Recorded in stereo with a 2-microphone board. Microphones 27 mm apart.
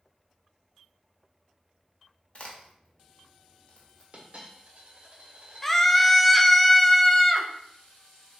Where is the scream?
10° left (ahead or behind), 0.6 m.